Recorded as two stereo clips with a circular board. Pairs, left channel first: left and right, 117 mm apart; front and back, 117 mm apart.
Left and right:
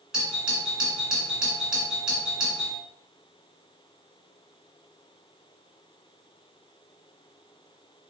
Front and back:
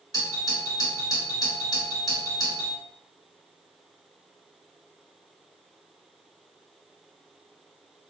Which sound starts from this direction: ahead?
A doorbell, at 0.1 s.